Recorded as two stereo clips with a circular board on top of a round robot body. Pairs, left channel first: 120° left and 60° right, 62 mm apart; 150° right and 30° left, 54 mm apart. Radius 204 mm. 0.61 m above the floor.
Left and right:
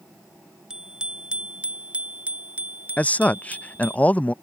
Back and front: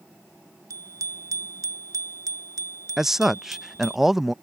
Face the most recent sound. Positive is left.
turn(degrees=105)